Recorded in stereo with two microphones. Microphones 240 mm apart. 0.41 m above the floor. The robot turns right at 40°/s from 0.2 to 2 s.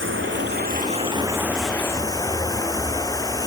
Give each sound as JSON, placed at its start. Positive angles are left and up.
{"t": 0.0, "sound": "running water", "azimuth_deg": -55}